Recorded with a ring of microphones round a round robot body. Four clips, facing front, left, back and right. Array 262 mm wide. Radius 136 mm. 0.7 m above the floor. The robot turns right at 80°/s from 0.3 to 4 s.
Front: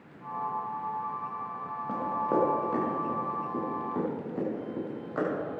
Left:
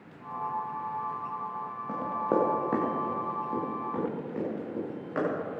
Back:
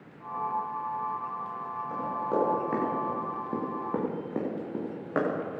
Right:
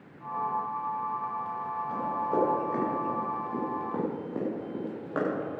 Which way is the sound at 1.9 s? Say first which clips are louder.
Left 2 dB, front 2 dB; 45° left.